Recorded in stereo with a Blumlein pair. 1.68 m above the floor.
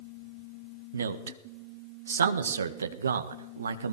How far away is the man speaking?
About 1.5 m.